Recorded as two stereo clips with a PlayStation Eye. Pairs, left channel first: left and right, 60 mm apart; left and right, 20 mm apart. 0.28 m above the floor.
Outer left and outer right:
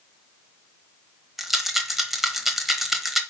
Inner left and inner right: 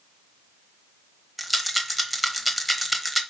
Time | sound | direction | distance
1.4 | a rattle | 5° right (ahead or behind) | 1.0 m